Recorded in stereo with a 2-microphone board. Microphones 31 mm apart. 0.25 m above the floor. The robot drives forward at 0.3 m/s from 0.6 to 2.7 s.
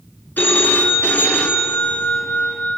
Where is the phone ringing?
70° left (ahead or behind), 1.7 m; by 2.8 s 60° left (ahead or behind), 1.9 m.